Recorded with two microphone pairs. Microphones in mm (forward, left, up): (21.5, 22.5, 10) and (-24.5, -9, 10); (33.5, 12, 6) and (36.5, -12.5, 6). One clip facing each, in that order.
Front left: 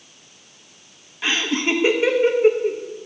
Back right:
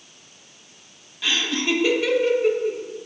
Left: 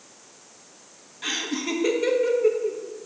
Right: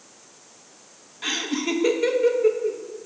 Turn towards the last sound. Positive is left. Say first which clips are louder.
# front left 2 dB, right 2 dB
turn(degrees=-5)